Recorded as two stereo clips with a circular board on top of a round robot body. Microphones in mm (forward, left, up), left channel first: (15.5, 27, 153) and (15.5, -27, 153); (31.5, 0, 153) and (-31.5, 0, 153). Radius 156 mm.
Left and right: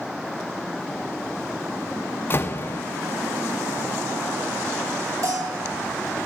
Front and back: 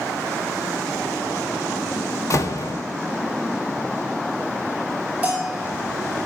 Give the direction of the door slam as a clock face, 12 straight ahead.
11 o'clock.